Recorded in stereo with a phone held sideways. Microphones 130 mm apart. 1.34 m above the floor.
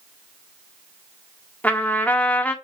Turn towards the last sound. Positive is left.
turn(degrees=10)  # may be behind; listen again after turning